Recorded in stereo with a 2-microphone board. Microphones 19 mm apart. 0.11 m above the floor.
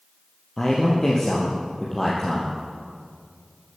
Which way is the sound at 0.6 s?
25° left (ahead or behind).